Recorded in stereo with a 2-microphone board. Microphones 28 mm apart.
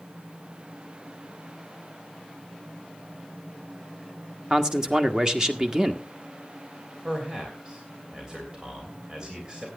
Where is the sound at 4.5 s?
25° right (ahead or behind), 1.3 m.